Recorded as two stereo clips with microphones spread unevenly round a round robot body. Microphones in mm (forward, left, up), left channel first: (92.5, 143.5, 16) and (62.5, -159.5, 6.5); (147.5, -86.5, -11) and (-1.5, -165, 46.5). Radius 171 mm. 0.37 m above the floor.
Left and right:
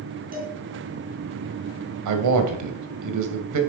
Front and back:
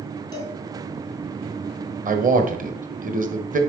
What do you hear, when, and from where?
0.3 s a cowbell: 35° right, 4 m
2.0 s a man speaking: 105° right, 1.7 m